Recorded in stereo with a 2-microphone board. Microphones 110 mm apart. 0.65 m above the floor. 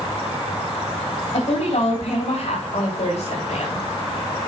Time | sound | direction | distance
1.3 | a woman speaking | 65° left (ahead or behind) | 4 m